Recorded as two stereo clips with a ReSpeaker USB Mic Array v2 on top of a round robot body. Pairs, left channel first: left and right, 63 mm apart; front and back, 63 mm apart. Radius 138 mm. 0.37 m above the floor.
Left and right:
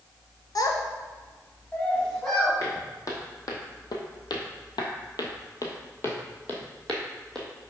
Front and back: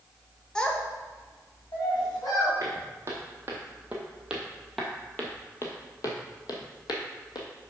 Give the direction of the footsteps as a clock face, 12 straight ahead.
8 o'clock.